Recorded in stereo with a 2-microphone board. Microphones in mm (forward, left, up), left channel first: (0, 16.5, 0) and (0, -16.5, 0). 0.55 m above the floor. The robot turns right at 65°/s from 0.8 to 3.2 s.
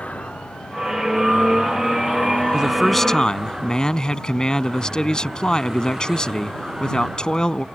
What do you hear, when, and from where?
0.0 s a vehicle: 40° left; by 7.8 s 165° right
2.5 s a man speaking: 20° right; by 7.7 s 20° left